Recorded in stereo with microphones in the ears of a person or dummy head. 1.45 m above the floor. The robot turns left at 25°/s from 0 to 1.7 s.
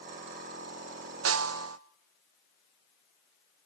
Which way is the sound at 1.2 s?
75° right (ahead or behind).